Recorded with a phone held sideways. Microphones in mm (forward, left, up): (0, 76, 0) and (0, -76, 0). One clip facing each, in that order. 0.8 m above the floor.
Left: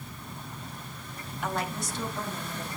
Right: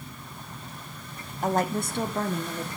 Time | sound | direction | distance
1.4 | a woman speaking | 35° right (ahead or behind) | 0.9 m